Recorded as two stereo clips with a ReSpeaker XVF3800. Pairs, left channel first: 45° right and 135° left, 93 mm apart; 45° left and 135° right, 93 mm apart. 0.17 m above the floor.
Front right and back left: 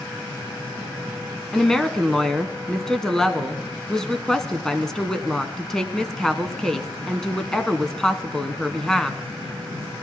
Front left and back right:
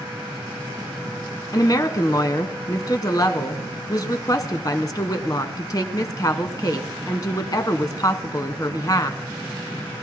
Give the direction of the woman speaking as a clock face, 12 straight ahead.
11 o'clock.